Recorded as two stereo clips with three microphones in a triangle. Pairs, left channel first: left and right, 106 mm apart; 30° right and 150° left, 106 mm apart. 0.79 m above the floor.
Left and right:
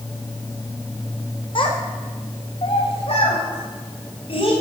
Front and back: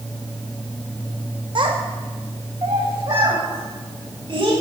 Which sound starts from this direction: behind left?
A child speaking, at 1.6 s.